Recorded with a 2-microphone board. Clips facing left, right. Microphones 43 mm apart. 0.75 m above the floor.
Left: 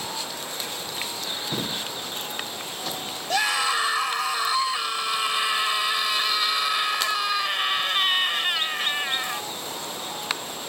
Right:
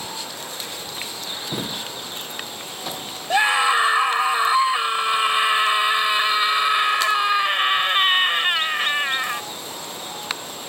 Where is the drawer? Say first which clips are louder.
Right 2 dB; 15° right (ahead or behind).